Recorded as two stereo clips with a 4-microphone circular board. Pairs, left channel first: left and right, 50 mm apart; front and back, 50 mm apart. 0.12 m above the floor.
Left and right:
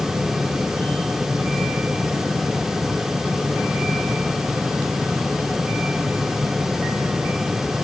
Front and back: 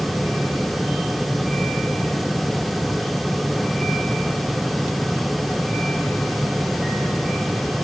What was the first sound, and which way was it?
Only background noise.